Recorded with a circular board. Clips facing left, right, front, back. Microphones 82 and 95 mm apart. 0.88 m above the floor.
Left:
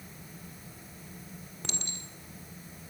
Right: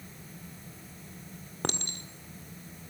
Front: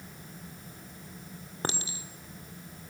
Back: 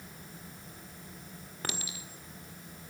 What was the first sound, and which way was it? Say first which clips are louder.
A clink: right 8 dB, front 5 dB; 60° right.